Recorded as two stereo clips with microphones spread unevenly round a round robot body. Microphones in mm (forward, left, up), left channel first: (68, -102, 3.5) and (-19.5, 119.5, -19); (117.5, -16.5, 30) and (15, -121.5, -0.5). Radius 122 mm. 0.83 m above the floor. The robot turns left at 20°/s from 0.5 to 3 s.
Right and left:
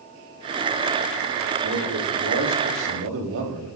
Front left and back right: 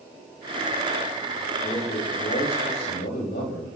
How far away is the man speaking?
About 5.5 m.